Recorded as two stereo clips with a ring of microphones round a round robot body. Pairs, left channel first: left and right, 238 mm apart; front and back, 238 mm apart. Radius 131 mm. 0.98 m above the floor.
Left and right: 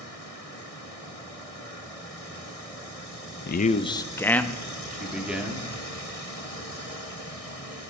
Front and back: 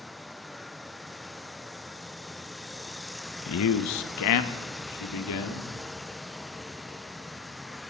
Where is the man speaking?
40° left, 0.6 m; by 5.7 s 5° right, 2 m.